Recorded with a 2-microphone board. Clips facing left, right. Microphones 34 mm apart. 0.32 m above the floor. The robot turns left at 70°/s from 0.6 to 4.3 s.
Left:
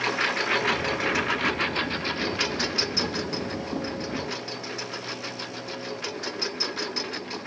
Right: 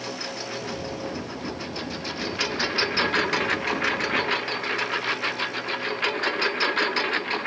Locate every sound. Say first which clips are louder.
0.0 s a lawn mower: left 8 dB; 125° left; by 7.5 s 130° right